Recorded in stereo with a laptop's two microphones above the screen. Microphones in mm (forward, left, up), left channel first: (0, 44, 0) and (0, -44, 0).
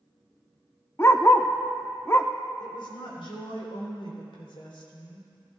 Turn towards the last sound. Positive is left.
turn(degrees=80)